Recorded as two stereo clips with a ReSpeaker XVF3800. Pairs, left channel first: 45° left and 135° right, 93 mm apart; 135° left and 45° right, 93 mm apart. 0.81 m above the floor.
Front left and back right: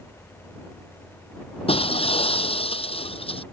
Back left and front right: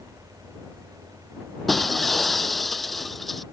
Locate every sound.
1.7 s breaking glass: 45° left